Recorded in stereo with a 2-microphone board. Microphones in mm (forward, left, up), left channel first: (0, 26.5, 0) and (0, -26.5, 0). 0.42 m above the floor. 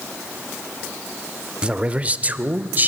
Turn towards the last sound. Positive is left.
turn(degrees=-35)  # may be behind; listen again after turning